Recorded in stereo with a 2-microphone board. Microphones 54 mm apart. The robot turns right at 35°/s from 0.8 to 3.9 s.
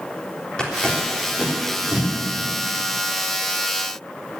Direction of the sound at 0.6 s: 15° left (ahead or behind).